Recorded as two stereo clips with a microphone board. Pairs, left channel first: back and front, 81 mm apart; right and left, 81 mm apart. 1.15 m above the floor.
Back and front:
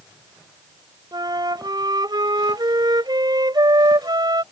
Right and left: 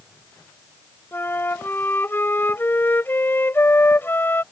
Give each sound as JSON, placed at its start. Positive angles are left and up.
{"t": 1.1, "sound": "a flute", "azimuth_deg": -25}